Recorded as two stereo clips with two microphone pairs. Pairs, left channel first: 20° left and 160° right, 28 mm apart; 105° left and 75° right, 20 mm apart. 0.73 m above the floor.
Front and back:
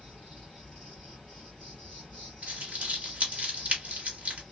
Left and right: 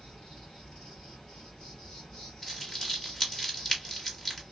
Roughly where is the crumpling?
Behind.